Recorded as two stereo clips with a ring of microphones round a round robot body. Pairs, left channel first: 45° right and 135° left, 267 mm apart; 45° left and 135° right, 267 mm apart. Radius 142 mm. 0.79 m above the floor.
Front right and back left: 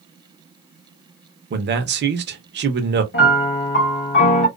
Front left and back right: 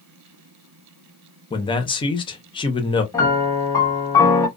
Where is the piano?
30° right, 1.0 m.